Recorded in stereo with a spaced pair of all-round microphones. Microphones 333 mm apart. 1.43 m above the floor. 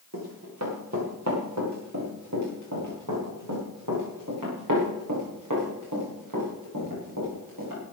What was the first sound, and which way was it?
Running footsteps, 50° right (ahead or behind).